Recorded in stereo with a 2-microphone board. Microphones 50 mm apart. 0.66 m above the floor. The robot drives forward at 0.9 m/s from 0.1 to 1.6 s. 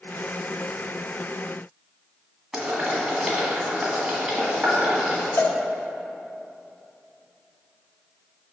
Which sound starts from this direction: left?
A cowbell, at 5.4 s.